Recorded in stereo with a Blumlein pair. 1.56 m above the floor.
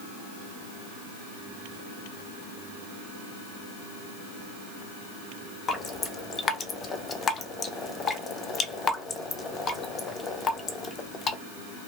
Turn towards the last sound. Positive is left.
turn(degrees=20)